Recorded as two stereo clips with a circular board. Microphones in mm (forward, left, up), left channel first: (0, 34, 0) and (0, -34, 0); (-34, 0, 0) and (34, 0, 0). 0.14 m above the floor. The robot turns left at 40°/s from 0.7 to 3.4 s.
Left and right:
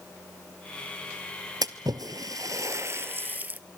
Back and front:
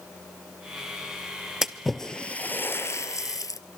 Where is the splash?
85° right, 1.0 m; by 3.6 s 155° right, 1.0 m.